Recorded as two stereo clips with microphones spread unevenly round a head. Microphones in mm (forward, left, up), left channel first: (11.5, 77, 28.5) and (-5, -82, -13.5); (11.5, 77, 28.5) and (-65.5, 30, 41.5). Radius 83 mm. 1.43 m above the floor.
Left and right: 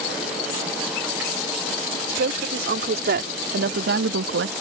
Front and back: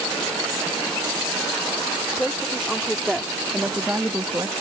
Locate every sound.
2.1 s a woman speaking: 60° right; by 4.5 s 80° right